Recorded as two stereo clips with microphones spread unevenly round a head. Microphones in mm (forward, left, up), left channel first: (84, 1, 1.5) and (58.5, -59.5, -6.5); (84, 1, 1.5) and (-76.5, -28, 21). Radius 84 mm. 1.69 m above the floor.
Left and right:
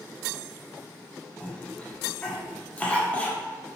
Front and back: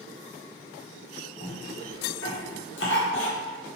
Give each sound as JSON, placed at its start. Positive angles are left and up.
{"t": 1.4, "sound": "a cough", "azimuth_deg": 0, "distance_m": 1.1}